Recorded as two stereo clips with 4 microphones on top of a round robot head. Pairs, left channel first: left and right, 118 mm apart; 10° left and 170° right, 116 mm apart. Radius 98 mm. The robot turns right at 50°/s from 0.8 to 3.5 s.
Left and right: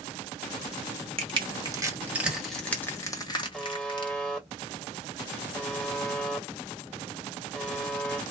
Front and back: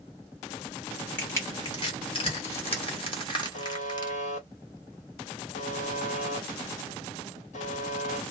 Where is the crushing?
65° right, 1.5 m; by 4.1 s 50° left, 1.5 m.